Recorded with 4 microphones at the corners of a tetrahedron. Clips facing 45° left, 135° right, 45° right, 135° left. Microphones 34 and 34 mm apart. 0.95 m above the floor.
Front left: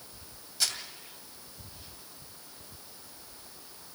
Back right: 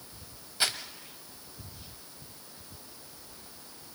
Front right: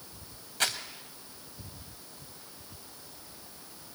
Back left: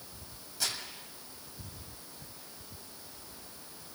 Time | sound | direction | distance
0.6 | crumpling | 75° right | 2 m